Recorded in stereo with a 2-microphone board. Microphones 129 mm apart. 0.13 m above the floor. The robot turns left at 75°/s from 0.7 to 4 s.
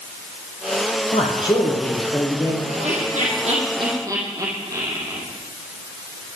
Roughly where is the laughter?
Right.